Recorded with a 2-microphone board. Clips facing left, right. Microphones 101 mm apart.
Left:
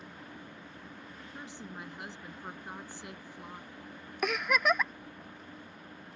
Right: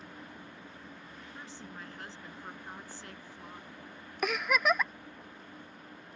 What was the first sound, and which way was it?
A woman speaking, 15° left (ahead or behind).